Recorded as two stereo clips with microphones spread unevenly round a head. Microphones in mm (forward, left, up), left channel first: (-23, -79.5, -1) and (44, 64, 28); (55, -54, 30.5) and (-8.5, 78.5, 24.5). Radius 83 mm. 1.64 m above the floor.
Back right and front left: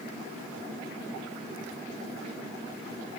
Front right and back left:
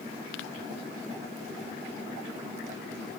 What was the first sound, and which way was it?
Only background noise.